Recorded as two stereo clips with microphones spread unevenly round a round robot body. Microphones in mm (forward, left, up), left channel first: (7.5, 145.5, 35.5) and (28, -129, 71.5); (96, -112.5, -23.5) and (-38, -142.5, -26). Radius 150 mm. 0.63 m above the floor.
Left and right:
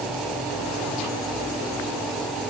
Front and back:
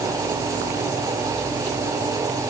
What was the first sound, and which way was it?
Only background noise.